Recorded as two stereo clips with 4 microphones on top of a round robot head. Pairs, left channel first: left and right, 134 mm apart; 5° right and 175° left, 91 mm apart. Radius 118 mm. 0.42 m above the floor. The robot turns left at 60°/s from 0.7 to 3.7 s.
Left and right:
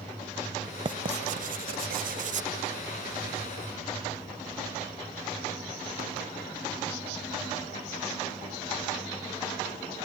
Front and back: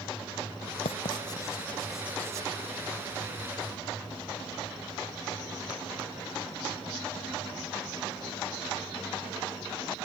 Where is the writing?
30° right; by 2.5 s 130° right.